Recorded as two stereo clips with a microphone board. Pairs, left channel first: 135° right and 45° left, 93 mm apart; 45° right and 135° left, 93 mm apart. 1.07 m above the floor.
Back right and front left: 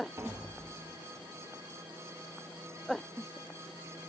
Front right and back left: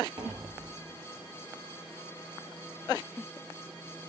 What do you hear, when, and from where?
0.2 s tapping: 105° left, 0.9 m